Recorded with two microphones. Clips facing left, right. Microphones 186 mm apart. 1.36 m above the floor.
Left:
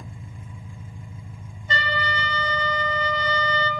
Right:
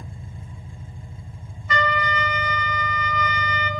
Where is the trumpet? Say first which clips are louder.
Right 4 dB; 30° left (ahead or behind), 2 m.